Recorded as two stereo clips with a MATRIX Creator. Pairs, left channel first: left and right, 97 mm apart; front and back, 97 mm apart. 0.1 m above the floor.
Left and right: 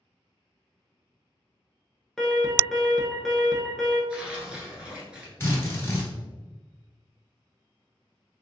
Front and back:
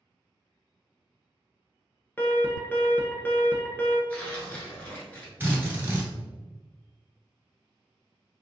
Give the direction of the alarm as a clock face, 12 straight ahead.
12 o'clock.